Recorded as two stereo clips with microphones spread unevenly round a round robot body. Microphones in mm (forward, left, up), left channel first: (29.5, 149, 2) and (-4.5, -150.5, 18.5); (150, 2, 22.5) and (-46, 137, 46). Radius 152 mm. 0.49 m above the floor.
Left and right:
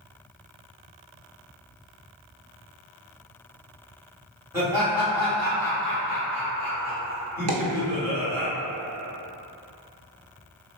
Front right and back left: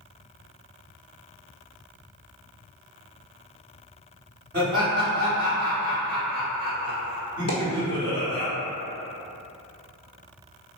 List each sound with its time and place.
4.5 s laughter: straight behind, 1.6 m
7.5 s a dropped coin: 80° right, 0.8 m